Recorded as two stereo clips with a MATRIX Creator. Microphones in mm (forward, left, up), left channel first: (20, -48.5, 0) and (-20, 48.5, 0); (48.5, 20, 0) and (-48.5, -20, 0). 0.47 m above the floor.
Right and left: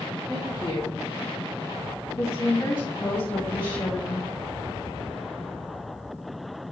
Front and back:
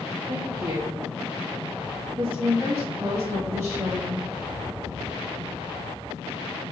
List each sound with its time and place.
0.3 s a woman speaking: 100° right, 4 m; by 4.2 s 105° right, 1.4 m